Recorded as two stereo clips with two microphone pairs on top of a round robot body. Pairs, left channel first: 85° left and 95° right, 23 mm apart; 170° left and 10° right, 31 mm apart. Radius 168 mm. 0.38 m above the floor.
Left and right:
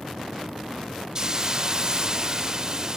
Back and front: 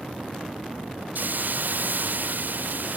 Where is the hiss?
35° right.